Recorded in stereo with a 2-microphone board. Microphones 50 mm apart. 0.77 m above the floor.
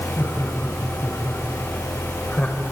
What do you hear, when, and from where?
0.2 s laughter: 65° left (ahead or behind), 6 m; by 2.6 s 30° left (ahead or behind), 4 m